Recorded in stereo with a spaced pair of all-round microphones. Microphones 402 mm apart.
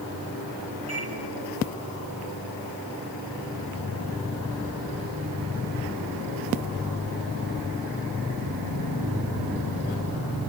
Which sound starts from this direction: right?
A microwave, at 0.9 s.